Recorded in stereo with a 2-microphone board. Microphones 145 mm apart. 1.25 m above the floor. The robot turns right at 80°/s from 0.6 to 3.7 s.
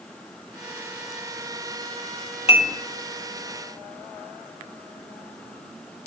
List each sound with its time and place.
2.5 s dishes clattering: 45° left (ahead or behind), 1.3 m; by 2.8 s 20° left (ahead or behind), 1.3 m